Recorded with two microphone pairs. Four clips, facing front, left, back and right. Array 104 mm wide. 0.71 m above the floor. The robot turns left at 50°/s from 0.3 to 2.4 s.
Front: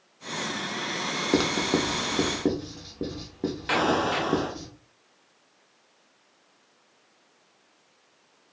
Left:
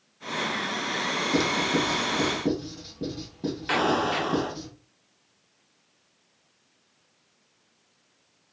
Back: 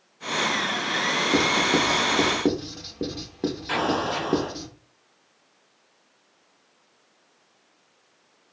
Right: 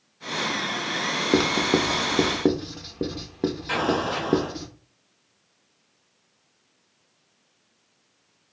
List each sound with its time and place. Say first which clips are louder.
1.3 s writing: right 4 dB, back 1 dB; 60° right, 0.6 m; by 4.7 s 110° right, 0.6 m
3.7 s an explosion: left 3 dB, front 2 dB; 30° left, 0.9 m